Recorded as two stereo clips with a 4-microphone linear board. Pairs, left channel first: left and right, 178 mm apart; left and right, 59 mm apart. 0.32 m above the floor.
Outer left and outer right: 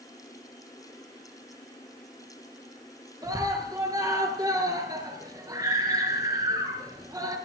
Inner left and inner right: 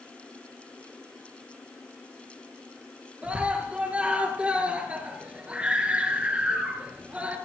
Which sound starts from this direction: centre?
A scream, at 3.2 s.